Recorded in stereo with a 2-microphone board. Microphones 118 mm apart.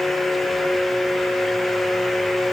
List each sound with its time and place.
Only background noise.